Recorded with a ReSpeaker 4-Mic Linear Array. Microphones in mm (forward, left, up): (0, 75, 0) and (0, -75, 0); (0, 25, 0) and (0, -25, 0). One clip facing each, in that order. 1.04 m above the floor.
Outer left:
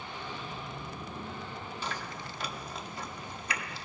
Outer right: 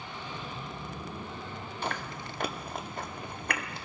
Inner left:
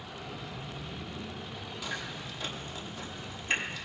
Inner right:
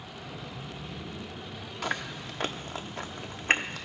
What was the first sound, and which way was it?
Chewing, 55° right (ahead or behind).